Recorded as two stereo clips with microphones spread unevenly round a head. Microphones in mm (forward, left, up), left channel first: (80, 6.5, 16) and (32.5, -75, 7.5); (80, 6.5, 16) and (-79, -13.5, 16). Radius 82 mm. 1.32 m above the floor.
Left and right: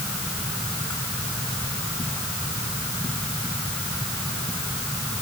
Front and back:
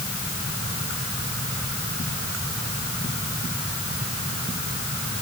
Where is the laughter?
No laughter in this recording.